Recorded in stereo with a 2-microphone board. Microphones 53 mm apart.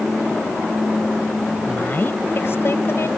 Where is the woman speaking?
40° left (ahead or behind); by 3.1 s 60° left (ahead or behind).